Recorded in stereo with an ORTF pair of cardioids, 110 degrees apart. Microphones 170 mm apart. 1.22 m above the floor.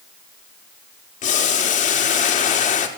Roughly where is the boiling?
Ahead left.